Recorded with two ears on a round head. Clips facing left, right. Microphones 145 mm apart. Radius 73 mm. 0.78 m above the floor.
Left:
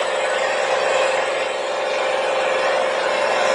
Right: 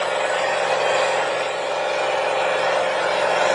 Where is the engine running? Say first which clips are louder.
Left 1 dB; 10° left (ahead or behind), 1.5 m.